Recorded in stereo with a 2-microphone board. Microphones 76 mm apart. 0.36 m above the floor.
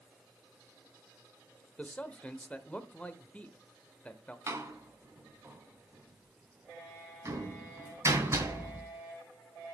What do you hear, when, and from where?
1.8 s a man speaking: 20° left (ahead or behind), 0.8 m
4.5 s a door slam: 35° right (ahead or behind), 1.8 m